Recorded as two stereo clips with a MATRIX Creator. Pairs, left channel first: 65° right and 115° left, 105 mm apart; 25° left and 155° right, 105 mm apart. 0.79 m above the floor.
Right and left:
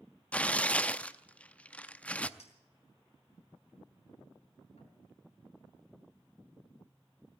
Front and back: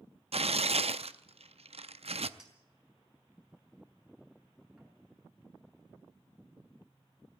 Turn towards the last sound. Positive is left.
turn(degrees=-75)